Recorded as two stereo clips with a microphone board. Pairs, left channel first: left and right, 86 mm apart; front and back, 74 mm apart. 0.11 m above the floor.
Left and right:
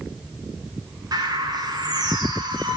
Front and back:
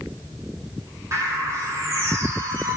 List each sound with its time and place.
1.1 s a bird: 130° right, 5.5 m